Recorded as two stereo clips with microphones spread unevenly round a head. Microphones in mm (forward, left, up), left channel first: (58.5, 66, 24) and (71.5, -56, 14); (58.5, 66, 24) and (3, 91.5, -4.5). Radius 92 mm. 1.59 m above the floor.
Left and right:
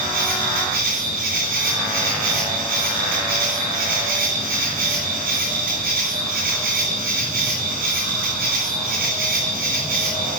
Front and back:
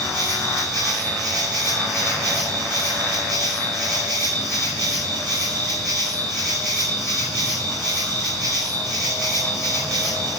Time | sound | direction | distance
0.0 | an insect | 115° right | 6 m